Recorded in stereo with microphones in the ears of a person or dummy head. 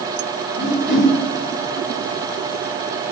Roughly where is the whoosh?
Centre.